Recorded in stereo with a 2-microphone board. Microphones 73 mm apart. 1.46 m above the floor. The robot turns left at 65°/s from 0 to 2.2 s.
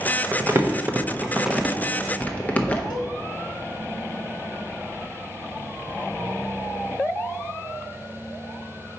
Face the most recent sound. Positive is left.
turn(degrees=80)